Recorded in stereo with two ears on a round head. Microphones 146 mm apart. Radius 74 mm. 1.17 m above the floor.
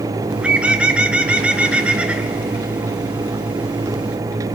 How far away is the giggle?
I don't hear a giggle.